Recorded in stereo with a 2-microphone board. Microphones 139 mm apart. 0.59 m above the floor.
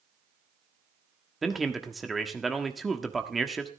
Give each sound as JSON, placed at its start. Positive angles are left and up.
{"t": 1.4, "sound": "a man speaking", "side_deg": 0, "distance_m": 1.3}